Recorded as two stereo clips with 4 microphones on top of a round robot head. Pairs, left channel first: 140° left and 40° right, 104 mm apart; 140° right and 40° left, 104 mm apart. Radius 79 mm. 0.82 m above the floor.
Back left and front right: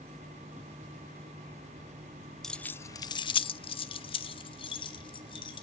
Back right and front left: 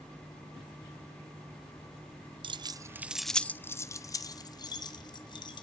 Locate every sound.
2.4 s keys jangling: 55° left, 0.5 m; by 5.6 s straight behind, 1.7 m